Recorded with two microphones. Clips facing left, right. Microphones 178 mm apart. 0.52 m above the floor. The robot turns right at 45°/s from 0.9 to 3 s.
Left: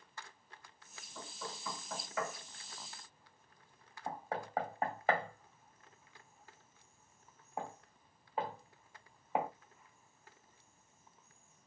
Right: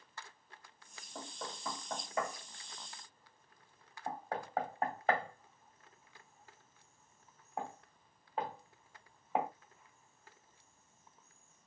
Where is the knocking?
75° right (ahead or behind), 1.6 m; by 9.5 s centre (ahead or behind), 1.6 m.